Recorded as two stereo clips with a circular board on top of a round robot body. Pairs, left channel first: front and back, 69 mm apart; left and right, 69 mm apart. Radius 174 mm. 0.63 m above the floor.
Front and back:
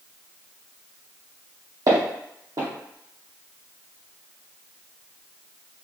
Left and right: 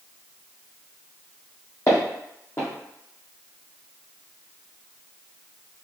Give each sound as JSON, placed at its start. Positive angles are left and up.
{"t": 1.9, "sound": "footsteps", "azimuth_deg": 140, "distance_m": 1.4}